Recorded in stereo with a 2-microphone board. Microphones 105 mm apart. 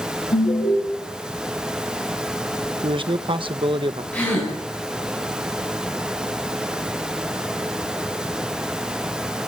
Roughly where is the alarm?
Left.